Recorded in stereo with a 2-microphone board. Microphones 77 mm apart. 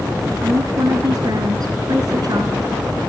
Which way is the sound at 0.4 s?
60° right (ahead or behind).